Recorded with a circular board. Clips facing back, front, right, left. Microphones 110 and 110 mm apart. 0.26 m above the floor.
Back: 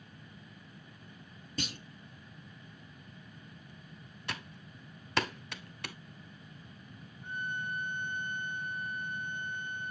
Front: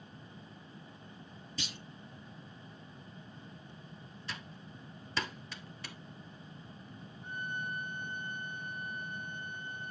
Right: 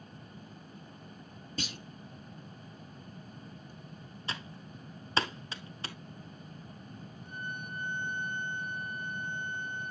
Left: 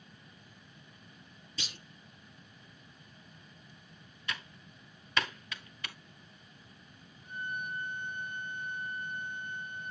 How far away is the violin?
About 5.5 m.